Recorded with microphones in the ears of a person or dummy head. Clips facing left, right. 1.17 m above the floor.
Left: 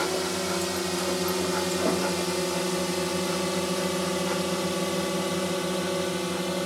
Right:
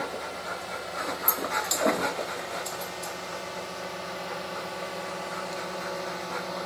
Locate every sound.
0.0 s a drone: 70° left (ahead or behind); by 6.7 s 40° left (ahead or behind)